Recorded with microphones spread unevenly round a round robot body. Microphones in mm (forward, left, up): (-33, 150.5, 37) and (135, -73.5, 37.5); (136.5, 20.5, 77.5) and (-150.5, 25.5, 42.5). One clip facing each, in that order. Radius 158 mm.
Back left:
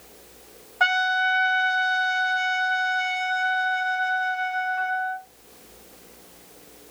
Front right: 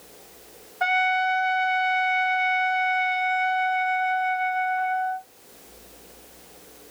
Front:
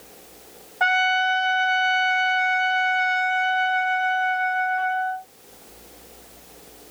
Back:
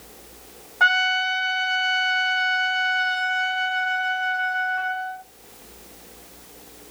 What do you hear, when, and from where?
0.8 s a trumpet: 105° left, 0.8 m